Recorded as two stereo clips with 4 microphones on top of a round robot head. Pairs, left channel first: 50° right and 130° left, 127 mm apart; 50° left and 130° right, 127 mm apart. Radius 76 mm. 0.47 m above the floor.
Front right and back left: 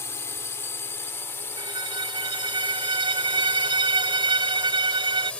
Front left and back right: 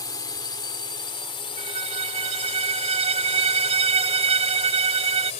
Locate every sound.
0.0 s a drone: 10° left; by 5.4 s 30° left
1.6 s a violin: 175° right